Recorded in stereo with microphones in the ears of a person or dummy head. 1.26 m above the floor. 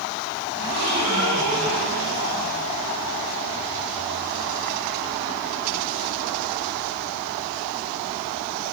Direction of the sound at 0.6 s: 50° right (ahead or behind).